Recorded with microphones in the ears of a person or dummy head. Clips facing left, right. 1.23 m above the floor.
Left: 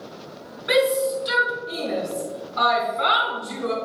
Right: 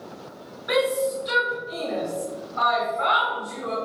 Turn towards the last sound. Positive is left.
turn(degrees=55)  # may be behind; listen again after turning